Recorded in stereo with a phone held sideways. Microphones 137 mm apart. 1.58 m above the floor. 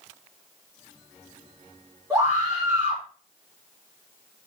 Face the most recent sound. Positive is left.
turn(degrees=-25)  # may be behind; listen again after turning